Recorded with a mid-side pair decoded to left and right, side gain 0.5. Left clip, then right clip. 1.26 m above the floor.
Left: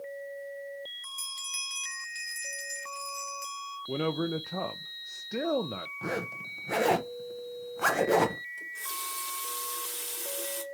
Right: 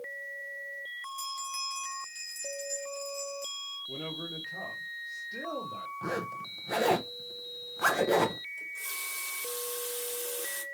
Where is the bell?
40° left, 1.9 m.